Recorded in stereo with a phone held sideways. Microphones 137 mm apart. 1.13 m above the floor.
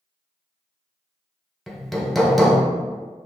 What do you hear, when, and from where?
1.7 s hammering: centre (ahead or behind), 0.6 m